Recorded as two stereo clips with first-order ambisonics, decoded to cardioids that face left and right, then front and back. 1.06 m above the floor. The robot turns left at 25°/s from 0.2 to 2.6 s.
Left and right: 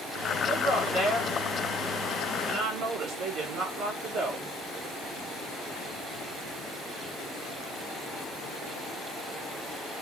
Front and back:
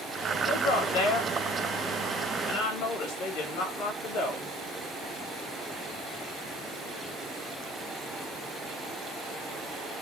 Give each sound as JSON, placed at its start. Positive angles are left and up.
{"t": 0.5, "sound": "a woman speaking", "azimuth_deg": 10, "distance_m": 3.0}